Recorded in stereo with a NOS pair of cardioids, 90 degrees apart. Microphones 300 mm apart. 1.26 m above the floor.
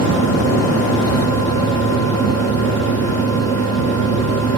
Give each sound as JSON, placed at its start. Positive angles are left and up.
{"t": 0.0, "sound": "a fan", "azimuth_deg": -55, "distance_m": 1.5}